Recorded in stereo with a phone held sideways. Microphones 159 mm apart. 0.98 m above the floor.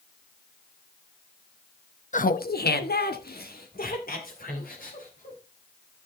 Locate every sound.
2.1 s laughter: 50° left (ahead or behind), 0.8 m; by 5.4 s 60° left (ahead or behind), 4 m